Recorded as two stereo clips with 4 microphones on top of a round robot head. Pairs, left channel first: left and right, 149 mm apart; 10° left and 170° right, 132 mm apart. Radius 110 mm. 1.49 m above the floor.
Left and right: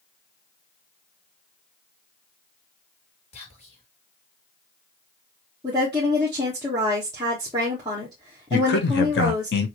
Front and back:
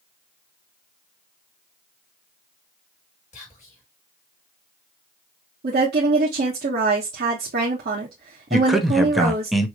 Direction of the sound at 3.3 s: 45° left.